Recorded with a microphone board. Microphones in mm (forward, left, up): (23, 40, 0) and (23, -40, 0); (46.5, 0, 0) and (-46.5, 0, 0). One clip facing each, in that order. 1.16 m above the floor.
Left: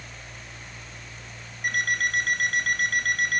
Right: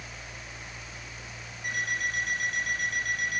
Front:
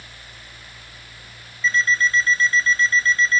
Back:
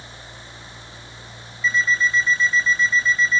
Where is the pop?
No pop in this recording.